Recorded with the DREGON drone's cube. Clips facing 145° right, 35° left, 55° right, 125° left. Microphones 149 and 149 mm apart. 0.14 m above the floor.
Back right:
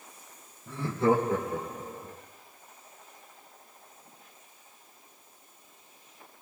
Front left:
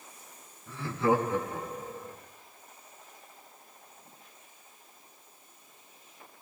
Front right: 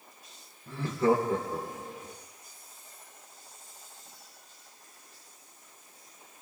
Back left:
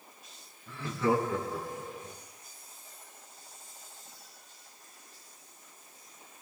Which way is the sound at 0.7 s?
100° right.